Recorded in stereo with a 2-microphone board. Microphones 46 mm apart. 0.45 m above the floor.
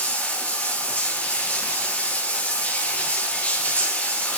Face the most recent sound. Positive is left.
turn(degrees=35)  # may be behind; listen again after turning